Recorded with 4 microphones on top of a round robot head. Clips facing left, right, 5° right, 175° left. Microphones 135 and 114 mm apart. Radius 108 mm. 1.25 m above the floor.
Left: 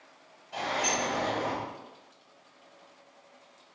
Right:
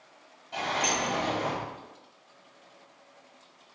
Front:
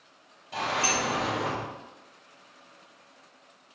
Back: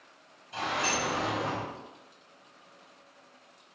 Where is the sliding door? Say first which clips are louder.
Right 1 dB, front 3 dB; 20° right, 0.9 m.